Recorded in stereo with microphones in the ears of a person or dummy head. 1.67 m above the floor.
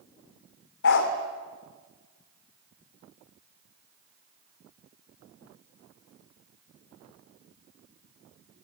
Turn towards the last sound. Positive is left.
turn(degrees=60)  # may be behind; listen again after turning